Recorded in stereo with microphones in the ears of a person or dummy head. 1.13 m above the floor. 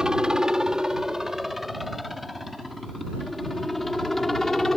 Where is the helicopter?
5° right (ahead or behind); by 4.8 s 5° left (ahead or behind).